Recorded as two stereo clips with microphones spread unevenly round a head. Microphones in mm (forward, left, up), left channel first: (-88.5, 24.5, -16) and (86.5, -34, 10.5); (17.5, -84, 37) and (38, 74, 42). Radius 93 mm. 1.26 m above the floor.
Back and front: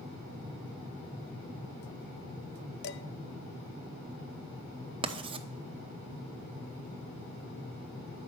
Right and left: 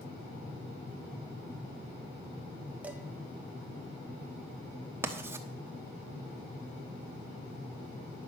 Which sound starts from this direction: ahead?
Writing, at 5.0 s.